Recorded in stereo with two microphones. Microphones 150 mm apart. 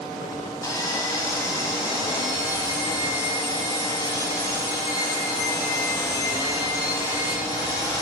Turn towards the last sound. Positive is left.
turn(degrees=25)  # may be behind; listen again after turning